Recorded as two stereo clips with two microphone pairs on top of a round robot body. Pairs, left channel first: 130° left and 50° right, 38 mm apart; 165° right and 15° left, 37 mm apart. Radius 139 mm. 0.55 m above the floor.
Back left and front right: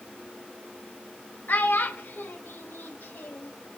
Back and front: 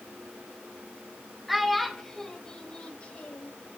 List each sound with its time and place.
1.5 s a child speaking: 100° left, 1.7 m; by 3.5 s 150° left, 2.0 m